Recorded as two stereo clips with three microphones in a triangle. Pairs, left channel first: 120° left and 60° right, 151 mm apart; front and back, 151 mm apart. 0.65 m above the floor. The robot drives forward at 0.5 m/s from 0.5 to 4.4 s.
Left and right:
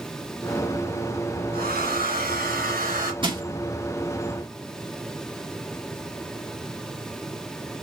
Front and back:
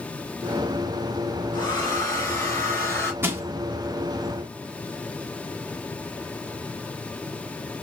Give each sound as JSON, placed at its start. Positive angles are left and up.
{"t": 1.5, "sound": "a hair dryer", "azimuth_deg": -60, "distance_m": 3.5}
{"t": 3.2, "sound": "crushing", "azimuth_deg": -110, "distance_m": 1.4}